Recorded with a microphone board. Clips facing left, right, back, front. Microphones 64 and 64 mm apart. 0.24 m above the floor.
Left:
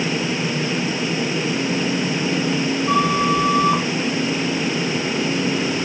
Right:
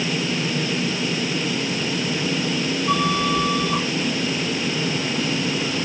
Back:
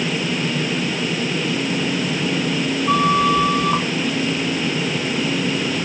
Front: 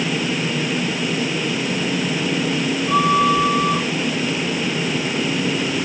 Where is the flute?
160° left, 3 m.